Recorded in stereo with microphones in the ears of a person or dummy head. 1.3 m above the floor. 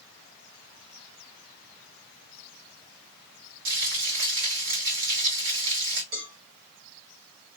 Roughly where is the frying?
Right.